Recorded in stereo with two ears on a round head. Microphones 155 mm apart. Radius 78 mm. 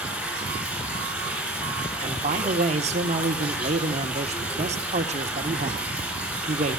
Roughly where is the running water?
Centre.